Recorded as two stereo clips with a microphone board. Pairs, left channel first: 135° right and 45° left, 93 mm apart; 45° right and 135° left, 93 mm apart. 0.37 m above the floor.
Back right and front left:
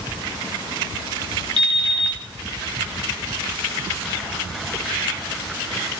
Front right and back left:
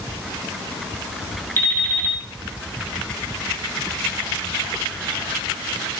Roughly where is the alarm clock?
Ahead.